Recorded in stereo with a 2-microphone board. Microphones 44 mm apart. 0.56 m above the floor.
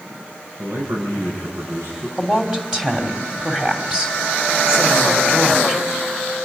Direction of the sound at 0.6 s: 75° right (ahead or behind).